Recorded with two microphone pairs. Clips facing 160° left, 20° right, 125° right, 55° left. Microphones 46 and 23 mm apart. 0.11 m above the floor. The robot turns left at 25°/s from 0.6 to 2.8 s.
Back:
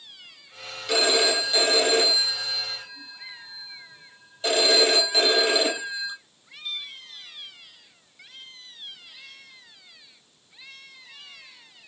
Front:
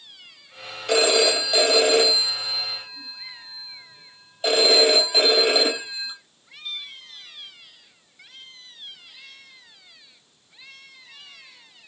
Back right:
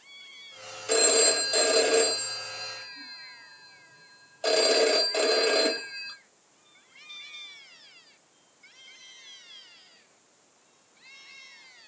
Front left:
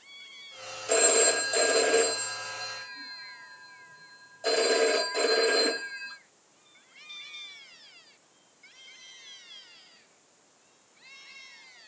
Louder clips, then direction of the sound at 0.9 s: Front 3 dB, back right 1 dB; 40° right.